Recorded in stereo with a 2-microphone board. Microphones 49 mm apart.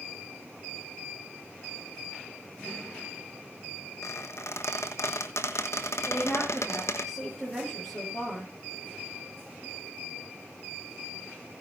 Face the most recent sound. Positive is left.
turn(degrees=5)  # may be behind; listen again after turning